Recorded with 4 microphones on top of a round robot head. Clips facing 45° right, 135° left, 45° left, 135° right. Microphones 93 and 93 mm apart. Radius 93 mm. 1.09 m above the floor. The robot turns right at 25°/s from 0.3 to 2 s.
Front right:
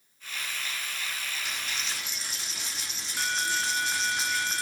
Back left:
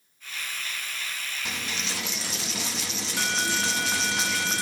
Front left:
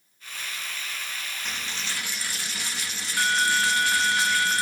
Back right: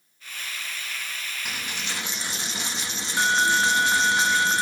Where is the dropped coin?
140° left, 0.6 m; by 4.6 s 155° left, 0.6 m.